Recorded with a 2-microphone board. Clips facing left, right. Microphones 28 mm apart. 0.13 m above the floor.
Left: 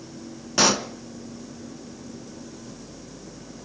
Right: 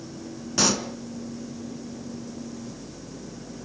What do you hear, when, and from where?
0.6 s a pop: 20° left (ahead or behind), 1.1 m